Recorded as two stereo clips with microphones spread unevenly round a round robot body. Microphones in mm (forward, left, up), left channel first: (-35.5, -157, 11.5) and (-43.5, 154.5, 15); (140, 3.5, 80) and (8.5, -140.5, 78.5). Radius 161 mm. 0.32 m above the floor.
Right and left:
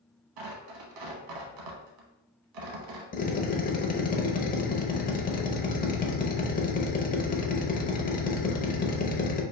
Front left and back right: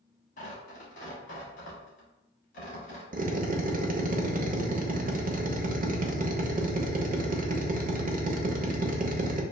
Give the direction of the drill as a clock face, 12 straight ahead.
5 o'clock.